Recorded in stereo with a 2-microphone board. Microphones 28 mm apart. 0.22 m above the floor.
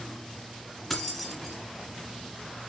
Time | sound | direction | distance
0.9 | keys jangling | centre (ahead or behind) | 1.6 m